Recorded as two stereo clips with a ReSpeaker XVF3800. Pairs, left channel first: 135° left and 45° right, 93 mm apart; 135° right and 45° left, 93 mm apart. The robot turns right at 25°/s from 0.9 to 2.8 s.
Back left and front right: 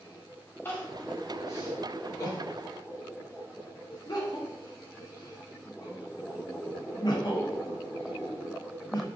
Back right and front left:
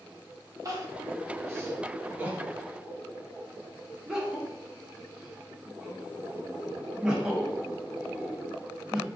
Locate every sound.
0.7 s crying: 75° left, 0.5 m; by 9.1 s 125° left, 0.5 m